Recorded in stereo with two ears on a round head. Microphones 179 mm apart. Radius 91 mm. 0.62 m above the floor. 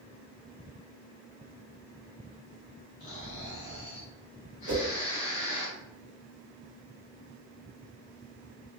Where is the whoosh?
80° right, 0.7 m.